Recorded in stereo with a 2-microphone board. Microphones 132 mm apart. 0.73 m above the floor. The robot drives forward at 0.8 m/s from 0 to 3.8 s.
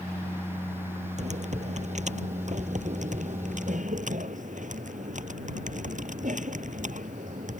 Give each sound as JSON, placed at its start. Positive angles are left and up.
{"t": 1.2, "sound": "typing on a keyboard", "side_deg": -60}